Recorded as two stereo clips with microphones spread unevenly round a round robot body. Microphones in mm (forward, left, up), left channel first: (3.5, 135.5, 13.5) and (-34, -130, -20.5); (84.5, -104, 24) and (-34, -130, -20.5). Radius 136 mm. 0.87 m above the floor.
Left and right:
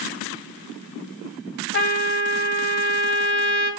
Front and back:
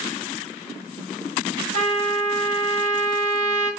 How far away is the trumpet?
About 0.8 m.